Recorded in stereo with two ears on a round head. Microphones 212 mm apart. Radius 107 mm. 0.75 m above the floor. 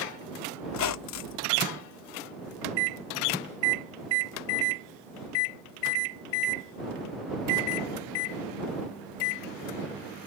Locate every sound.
0.7 s a squeak: 70° left (ahead or behind)